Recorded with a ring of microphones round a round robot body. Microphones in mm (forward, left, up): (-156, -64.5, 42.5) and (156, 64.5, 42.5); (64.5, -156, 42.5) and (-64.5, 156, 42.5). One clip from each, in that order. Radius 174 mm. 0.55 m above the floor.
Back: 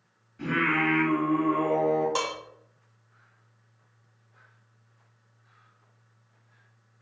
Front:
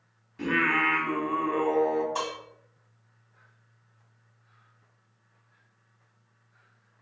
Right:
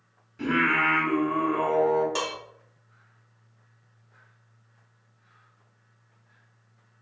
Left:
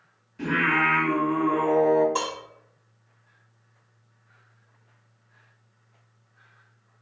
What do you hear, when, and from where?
0.4 s singing: 30° left, 1.0 m
2.1 s dishes clattering: 130° right, 1.4 m